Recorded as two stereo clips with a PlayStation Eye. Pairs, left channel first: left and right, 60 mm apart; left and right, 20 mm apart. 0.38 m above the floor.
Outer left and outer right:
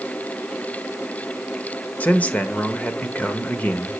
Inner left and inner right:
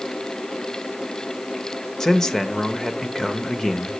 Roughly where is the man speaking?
Left.